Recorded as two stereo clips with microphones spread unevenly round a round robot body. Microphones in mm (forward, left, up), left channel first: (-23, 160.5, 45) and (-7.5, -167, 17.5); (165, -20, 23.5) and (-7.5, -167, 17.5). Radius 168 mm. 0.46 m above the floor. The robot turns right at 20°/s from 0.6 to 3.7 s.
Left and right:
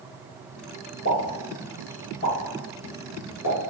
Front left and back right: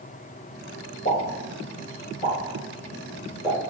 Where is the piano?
No piano in this recording.